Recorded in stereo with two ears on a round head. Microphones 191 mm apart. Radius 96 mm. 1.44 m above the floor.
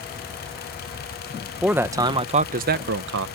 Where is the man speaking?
5° right (ahead or behind); by 3.3 s 70° right (ahead or behind).